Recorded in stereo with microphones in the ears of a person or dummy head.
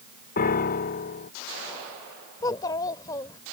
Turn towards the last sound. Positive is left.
turn(degrees=25)  # may be behind; listen again after turning